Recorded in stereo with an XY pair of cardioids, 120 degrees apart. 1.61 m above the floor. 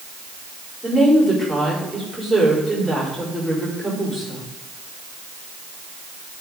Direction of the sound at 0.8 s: 5° right.